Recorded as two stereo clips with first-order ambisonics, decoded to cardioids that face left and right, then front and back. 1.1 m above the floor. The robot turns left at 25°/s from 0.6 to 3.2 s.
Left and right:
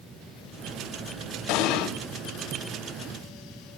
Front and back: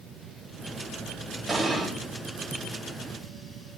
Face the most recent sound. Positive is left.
turn(degrees=50)